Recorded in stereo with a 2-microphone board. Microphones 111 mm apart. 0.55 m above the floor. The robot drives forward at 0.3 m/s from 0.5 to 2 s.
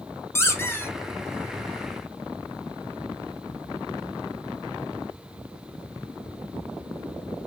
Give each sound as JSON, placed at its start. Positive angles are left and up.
{"t": 0.3, "sound": "a squeak", "side_deg": 25, "distance_m": 0.8}